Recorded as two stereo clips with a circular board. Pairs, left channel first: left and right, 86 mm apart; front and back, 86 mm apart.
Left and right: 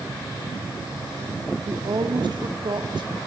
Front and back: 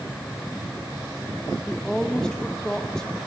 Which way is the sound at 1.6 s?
80° right.